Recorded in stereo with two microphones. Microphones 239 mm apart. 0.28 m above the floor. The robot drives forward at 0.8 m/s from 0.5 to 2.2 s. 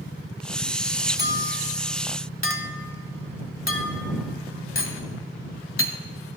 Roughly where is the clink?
Left.